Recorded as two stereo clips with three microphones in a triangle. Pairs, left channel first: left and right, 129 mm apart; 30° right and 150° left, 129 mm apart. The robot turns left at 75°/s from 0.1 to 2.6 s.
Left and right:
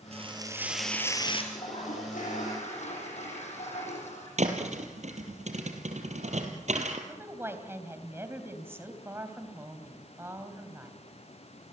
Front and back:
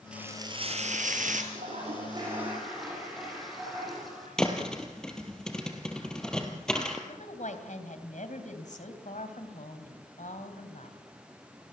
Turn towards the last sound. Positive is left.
turn(degrees=-20)